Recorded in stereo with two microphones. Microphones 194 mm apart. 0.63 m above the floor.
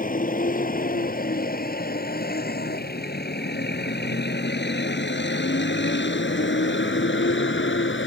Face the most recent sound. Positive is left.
turn(degrees=85)